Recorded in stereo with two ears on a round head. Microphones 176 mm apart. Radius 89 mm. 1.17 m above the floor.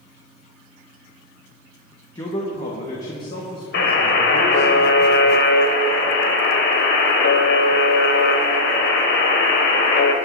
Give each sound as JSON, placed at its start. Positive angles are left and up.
{"t": 2.1, "sound": "a man speaking", "side_deg": 20, "distance_m": 1.2}
{"t": 3.7, "sound": "a buzzer", "side_deg": 55, "distance_m": 1.6}